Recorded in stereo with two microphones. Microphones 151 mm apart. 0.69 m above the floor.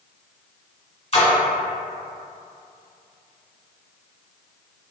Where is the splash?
40° left (ahead or behind), 1.4 m.